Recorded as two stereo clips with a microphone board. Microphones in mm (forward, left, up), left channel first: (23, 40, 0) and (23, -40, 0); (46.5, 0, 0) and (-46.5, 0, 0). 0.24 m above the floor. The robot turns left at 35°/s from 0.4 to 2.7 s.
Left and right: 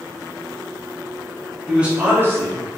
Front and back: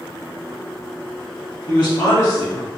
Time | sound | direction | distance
1.7 | a man speaking | 30° right | 1.2 m